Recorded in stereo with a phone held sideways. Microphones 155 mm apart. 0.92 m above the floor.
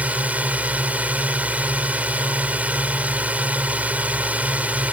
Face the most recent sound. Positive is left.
turn(degrees=-10)  # may be behind; listen again after turning